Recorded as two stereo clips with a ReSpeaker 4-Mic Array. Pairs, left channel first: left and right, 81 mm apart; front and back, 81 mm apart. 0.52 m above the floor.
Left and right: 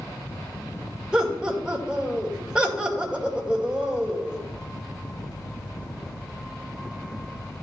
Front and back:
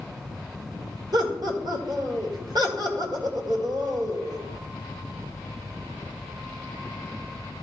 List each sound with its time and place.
1.1 s laughter: 170° right, 2 m